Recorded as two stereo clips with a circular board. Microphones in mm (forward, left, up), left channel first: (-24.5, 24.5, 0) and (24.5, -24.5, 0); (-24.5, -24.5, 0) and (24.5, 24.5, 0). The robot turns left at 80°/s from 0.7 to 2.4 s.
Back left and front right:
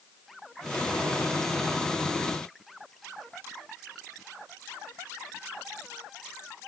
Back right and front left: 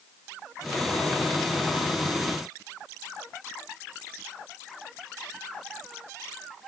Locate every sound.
Only background noise.